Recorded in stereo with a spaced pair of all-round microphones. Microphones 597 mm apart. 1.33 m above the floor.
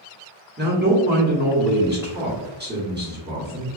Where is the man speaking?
15° right (ahead or behind), 1.0 m.